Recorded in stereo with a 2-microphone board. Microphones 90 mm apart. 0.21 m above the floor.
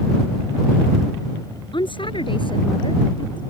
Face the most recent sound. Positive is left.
turn(degrees=60)  # may be behind; listen again after turning